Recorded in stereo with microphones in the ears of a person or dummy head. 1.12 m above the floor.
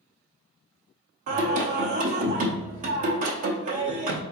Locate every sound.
1.3 s singing: 40° right (ahead or behind), 0.7 m